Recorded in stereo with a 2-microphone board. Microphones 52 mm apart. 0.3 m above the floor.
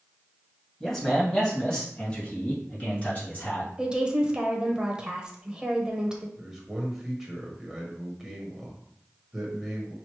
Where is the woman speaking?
15° right (ahead or behind), 0.9 m.